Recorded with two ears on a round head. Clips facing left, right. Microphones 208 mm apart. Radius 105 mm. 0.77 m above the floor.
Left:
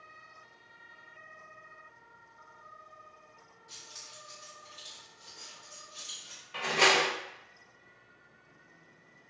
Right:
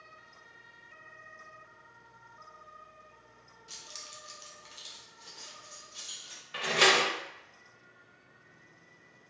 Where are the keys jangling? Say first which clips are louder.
Right 3 dB; 40° right (ahead or behind), 0.7 m; by 6.4 s 10° right (ahead or behind), 1.5 m.